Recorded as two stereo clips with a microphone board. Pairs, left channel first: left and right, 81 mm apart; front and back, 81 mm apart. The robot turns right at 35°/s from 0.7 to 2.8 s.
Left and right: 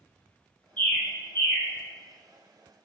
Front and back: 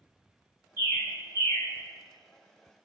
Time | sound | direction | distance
0.8 | a bird | 15° left | 1.5 m